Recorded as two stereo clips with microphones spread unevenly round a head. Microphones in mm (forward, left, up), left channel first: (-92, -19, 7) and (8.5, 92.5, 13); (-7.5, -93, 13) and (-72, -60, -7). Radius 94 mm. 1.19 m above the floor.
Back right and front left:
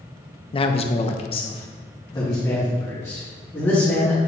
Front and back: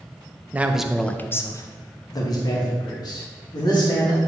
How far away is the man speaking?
About 0.6 m.